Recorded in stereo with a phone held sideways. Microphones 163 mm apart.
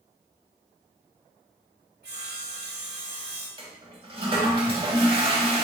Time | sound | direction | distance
2.0 | sawing | 80° right | 1.1 m
3.6 | a toilet flushing | 30° right (ahead or behind) | 0.7 m